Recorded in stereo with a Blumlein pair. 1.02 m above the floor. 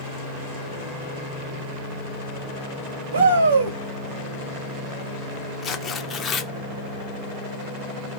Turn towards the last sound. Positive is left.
turn(degrees=20)